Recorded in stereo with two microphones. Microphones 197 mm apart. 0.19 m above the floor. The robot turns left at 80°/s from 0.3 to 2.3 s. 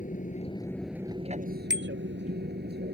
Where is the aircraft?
45° left; by 3.0 s 115° right.